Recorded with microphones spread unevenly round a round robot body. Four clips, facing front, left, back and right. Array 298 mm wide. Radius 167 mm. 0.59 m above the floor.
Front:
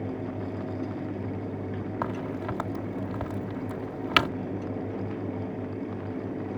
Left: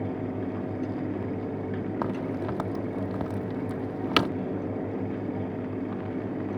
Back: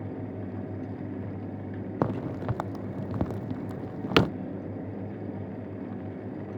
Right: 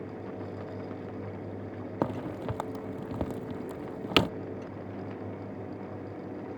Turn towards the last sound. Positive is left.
turn(degrees=-175)